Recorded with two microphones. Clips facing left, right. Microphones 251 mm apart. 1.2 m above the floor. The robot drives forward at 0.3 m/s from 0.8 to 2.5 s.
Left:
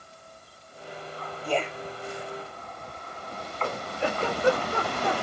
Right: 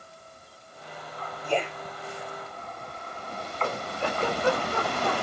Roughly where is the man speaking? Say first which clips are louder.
Even; centre.